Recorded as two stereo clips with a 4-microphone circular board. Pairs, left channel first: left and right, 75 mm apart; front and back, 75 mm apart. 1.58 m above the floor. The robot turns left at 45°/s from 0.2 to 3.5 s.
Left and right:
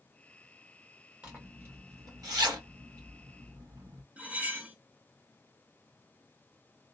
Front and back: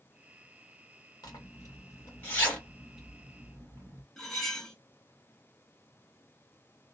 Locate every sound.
1.2 s a zipper: 15° right, 1.5 m; by 4.0 s 115° right, 1.5 m
4.2 s cutlery clinking: 75° right, 0.9 m